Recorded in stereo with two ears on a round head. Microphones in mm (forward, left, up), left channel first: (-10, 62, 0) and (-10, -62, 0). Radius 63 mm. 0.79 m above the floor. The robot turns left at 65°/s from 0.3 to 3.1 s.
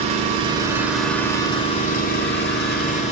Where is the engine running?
135° right, 2.0 m; by 3.1 s 40° left, 2.0 m.